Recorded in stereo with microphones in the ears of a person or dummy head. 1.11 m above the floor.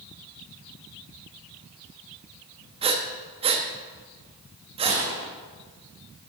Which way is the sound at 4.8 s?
25° right (ahead or behind).